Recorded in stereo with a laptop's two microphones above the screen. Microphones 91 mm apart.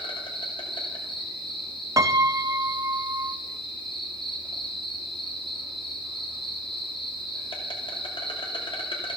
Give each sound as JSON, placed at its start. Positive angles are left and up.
{"t": 0.0, "sound": "an insect", "side_deg": 70, "distance_m": 2.5}
{"t": 2.0, "sound": "a piano", "side_deg": -40, "distance_m": 0.7}